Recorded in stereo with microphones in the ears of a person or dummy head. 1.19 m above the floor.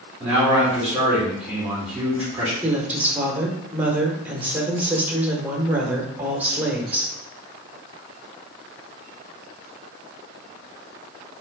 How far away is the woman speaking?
About 1.0 m.